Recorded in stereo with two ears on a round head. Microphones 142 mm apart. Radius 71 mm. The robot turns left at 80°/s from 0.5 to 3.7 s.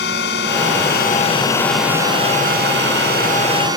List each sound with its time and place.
0.0 s a drone: 100° left; by 3.8 s 155° right